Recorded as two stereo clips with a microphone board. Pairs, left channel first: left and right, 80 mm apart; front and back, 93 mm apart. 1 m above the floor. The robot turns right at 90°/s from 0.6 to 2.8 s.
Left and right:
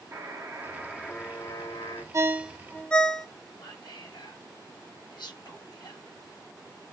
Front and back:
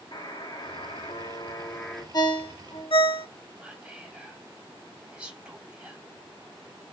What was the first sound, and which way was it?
A buzzer, 35° right.